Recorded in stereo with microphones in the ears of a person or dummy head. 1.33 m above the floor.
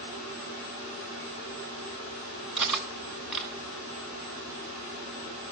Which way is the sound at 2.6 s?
Centre (ahead or behind).